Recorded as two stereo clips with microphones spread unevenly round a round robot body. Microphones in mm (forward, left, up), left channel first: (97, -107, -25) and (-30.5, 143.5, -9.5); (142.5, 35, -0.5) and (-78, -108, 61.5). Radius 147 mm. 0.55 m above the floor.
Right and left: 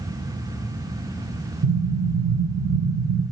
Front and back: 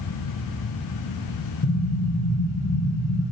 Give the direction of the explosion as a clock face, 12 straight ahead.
10 o'clock.